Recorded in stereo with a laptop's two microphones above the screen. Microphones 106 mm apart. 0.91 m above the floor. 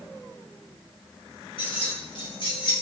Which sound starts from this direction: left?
Keys jangling, at 1.6 s.